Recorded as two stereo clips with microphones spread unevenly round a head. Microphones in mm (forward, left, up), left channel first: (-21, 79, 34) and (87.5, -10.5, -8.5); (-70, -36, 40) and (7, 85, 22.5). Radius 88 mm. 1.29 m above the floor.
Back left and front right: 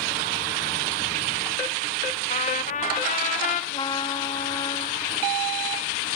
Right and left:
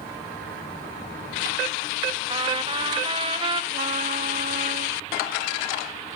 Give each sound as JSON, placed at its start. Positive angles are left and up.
{"t": 2.3, "sound": "a trumpet", "azimuth_deg": 110, "distance_m": 0.8}
{"t": 3.7, "sound": "a trumpet", "azimuth_deg": 95, "distance_m": 0.7}